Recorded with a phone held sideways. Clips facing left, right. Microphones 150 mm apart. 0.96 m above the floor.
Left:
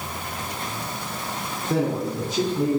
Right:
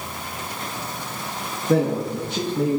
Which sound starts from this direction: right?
A man speaking, at 1.7 s.